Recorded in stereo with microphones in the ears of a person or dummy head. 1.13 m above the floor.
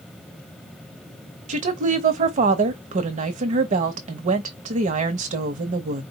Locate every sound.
1.5 s a woman speaking: 40° right (ahead or behind), 0.9 m